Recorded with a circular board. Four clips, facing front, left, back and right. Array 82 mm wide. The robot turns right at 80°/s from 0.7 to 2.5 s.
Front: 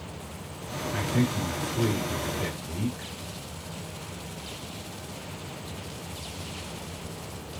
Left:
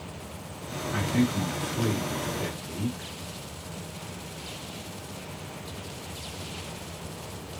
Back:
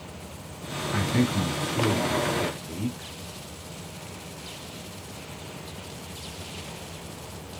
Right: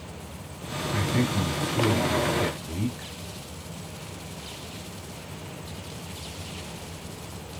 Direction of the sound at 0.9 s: 170° right.